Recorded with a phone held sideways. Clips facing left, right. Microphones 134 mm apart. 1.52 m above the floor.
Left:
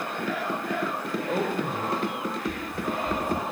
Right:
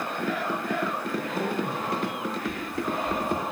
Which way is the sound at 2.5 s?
40° left (ahead or behind).